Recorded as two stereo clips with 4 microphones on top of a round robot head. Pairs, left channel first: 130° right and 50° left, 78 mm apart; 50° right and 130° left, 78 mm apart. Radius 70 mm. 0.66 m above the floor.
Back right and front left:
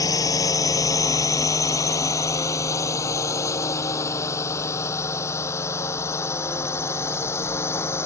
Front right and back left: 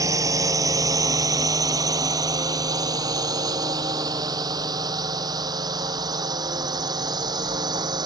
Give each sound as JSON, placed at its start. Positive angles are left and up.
{"t": 0.0, "sound": "a drone", "azimuth_deg": 180}